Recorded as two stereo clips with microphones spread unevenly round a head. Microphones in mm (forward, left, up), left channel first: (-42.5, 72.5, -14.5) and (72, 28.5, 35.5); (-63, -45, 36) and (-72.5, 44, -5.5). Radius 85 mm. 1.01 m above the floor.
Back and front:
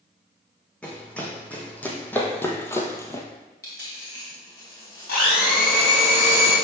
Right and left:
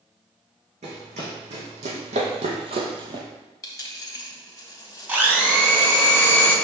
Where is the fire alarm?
I don't hear a fire alarm.